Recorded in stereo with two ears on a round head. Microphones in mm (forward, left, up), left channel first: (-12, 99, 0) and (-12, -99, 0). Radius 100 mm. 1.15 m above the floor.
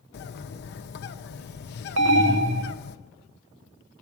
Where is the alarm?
55° right (ahead or behind), 1.0 m.